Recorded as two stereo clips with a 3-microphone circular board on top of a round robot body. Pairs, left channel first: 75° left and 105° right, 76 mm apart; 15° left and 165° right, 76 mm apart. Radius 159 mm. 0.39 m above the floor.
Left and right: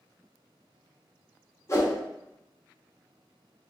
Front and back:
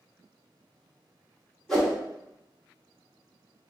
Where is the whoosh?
95° left, 1.5 m.